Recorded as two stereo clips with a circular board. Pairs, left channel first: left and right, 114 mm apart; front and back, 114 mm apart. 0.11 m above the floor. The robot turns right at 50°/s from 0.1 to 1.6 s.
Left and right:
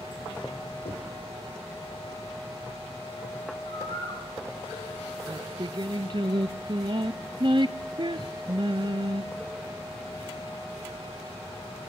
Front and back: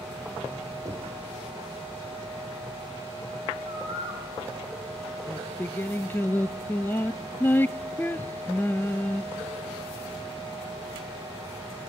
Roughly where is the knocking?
Behind left.